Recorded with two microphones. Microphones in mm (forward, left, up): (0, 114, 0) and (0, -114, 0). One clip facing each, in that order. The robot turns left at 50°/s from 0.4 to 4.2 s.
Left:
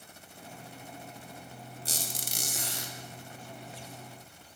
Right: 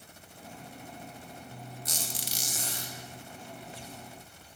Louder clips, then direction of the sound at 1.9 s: Left 2 dB; 150° left.